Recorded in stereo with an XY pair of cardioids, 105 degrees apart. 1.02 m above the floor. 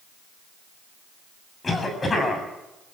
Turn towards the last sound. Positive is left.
turn(degrees=30)